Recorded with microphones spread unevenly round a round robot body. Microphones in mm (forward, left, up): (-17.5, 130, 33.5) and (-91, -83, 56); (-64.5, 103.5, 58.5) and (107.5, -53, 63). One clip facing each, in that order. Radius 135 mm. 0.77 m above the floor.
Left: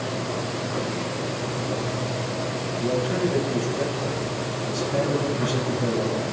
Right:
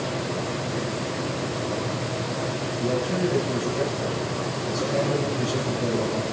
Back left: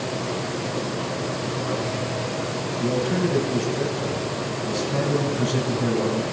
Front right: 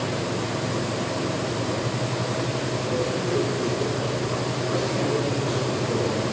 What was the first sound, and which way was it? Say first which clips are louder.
A man speaking: left 1 dB, back left 6 dB; 160° left.